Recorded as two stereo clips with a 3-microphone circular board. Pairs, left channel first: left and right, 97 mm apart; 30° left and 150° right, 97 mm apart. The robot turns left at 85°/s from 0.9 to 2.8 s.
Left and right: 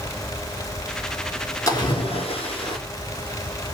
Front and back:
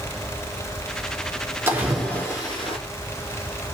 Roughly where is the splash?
Behind left.